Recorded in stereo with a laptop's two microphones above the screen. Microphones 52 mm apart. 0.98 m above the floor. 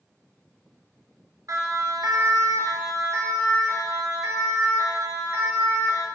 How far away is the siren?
About 3 m.